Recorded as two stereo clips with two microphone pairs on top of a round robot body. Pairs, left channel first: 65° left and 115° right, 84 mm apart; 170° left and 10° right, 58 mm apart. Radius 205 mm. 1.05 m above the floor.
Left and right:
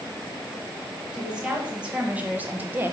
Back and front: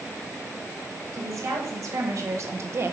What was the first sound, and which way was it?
A woman speaking, 35° right.